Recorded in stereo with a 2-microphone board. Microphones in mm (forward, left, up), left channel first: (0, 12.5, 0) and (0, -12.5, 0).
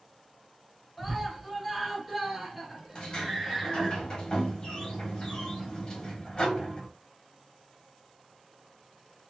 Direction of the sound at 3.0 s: 30° left (ahead or behind).